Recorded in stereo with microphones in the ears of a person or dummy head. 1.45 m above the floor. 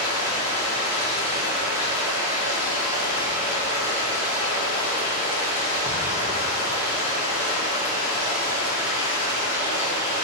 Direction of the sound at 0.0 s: 10° right (ahead or behind).